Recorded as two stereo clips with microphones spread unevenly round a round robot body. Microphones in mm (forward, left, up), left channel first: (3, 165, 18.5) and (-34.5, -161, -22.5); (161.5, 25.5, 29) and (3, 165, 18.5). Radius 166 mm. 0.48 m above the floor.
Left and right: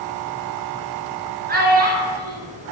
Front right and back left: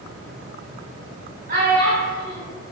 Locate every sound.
1.5 s a child speaking: 160° right, 1.6 m